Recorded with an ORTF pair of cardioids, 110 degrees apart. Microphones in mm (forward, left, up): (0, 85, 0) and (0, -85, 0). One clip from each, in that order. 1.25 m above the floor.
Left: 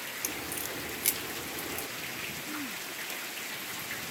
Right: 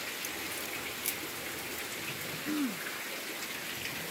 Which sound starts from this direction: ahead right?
Throat clearing, at 2.5 s.